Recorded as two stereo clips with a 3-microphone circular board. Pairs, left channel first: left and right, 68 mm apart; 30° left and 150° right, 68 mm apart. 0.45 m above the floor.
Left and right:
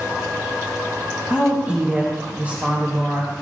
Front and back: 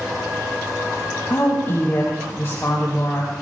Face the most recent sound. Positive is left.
turn(degrees=-25)